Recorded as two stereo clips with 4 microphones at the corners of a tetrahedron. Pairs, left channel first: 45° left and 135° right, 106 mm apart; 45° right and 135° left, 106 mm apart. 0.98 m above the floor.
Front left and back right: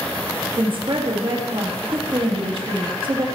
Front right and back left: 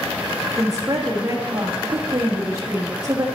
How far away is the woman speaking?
About 1.4 m.